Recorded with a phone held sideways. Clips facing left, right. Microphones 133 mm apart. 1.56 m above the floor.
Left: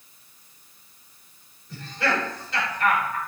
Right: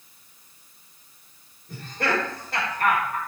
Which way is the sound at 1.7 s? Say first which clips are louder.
Even; 50° right (ahead or behind).